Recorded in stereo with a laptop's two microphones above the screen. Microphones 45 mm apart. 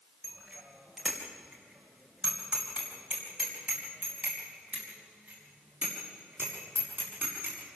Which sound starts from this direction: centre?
A bicycle bell, at 0.2 s.